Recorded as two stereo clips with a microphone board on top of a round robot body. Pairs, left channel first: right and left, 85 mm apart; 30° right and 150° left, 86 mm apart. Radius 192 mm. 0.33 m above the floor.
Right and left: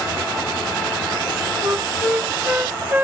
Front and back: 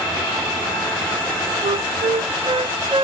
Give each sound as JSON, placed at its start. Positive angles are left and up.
{"t": 1.6, "sound": "a flute", "azimuth_deg": 160}